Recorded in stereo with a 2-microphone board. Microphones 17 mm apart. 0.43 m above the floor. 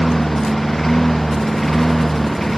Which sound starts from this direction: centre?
A lawn mower, at 0.0 s.